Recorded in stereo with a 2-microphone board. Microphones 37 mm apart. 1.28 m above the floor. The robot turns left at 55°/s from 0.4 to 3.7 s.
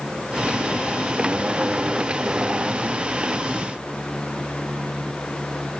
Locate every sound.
Only background noise.